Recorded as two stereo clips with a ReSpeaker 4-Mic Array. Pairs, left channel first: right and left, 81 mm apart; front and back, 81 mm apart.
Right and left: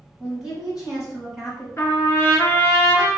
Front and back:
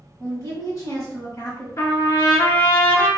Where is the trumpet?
40° right, 1.4 m.